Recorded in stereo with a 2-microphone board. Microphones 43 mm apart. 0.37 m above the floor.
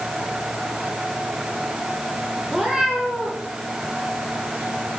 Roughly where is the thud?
I don't hear a thud.